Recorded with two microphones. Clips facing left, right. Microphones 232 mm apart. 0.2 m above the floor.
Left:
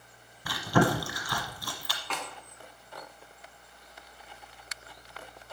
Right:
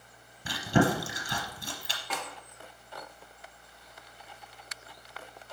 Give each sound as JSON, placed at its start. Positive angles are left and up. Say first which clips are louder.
{"t": 0.5, "sound": "chewing", "louder": "even", "side_deg": -25, "distance_m": 1.3}
{"t": 2.1, "sound": "a snare drum", "louder": "even", "side_deg": -10, "distance_m": 2.5}